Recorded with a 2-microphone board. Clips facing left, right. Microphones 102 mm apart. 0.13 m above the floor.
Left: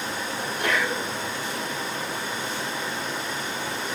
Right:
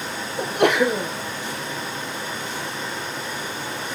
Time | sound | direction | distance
0.4 | a sneeze | 75° right (ahead or behind) | 4 m